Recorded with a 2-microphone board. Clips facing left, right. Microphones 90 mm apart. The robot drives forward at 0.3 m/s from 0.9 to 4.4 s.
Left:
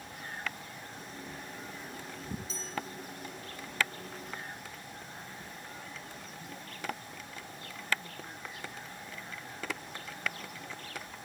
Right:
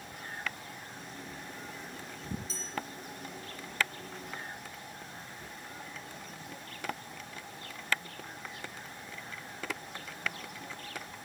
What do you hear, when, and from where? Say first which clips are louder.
2.5 s a bell: left 1 dB; 40° right (ahead or behind), 1.9 m